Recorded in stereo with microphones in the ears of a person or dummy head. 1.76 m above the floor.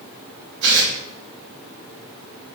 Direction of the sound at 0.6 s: 55° right (ahead or behind).